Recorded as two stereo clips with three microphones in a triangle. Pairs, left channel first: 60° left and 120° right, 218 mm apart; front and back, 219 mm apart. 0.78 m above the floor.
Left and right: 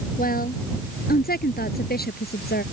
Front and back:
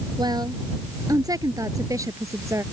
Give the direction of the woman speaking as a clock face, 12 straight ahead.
8 o'clock.